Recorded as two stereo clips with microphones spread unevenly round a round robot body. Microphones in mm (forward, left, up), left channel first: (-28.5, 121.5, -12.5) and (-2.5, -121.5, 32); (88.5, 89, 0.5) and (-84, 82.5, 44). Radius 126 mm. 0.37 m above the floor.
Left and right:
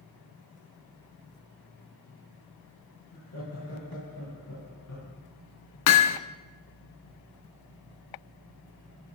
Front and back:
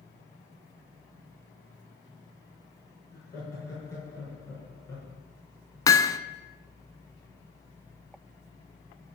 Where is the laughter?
70° left, 7 m; by 5.1 s 75° left, 6 m.